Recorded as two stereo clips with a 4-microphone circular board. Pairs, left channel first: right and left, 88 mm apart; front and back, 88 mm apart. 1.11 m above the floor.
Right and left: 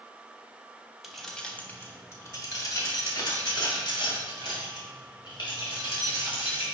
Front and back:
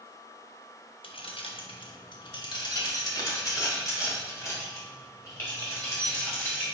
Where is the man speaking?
No man speaking in this recording.